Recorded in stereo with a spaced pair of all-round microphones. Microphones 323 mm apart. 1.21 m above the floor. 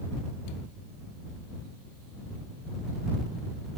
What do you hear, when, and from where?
Only background noise.